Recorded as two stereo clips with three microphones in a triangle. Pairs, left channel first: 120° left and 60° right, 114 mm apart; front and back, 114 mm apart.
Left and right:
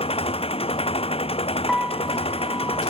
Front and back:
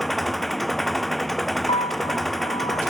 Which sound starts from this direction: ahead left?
A piano, at 1.7 s.